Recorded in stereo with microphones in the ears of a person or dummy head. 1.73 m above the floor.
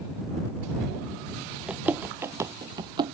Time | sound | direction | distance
1.7 | running footsteps | 5° right (ahead or behind) | ?